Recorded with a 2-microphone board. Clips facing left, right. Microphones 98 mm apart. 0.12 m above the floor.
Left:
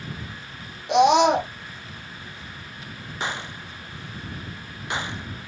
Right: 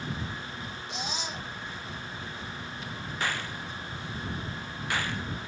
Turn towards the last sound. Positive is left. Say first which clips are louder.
# left 3 dB
turn(degrees=20)  # may be behind; listen again after turning